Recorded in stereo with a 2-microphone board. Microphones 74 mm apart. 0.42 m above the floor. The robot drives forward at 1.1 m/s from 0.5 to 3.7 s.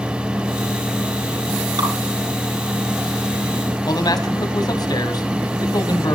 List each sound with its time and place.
1.8 s dripping: 65° right (ahead or behind), 6.5 m
3.9 s a man speaking: 60° left (ahead or behind), 3 m